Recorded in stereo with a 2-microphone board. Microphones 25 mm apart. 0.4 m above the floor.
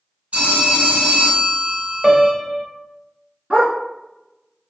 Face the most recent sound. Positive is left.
turn(degrees=-30)  # may be behind; listen again after turning